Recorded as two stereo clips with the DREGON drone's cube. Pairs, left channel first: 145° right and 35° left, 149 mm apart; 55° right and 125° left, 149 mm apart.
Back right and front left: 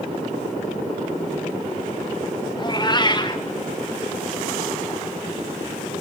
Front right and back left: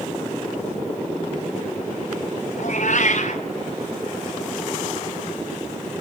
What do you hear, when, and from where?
2.6 s a cat meowing: 85° right, 1.9 m